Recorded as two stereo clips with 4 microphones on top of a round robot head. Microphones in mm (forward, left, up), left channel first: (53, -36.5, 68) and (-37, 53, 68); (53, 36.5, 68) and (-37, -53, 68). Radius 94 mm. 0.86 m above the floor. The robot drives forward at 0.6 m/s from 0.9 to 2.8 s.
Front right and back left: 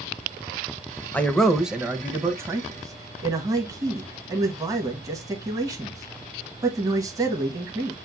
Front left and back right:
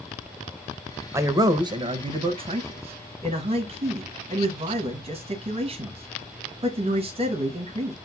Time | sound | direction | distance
1.1 | a man speaking | 105° right | 0.8 m